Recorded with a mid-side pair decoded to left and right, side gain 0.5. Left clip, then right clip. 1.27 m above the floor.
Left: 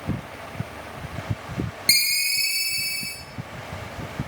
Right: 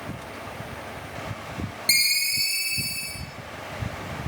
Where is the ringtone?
35° left, 0.7 m.